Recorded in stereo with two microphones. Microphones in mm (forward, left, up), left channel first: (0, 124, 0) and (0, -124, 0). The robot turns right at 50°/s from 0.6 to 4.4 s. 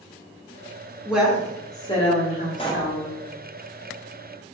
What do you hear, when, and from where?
1.1 s a woman speaking: 10° right, 1.2 m; by 3.2 s 95° left, 1.2 m
2.6 s a pop: 25° left (ahead or behind), 0.5 m; by 3.0 s 10° left (ahead or behind), 0.5 m